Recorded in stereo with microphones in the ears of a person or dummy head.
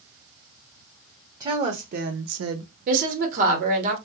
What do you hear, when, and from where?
1.4 s a woman speaking: 25° right (ahead or behind), 0.9 m; by 2.7 s 65° right (ahead or behind), 0.7 m
2.9 s a woman speaking: 45° right (ahead or behind), 0.9 m